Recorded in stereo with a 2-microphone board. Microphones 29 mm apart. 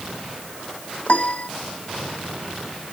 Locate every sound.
1.1 s a piano: 50° left (ahead or behind)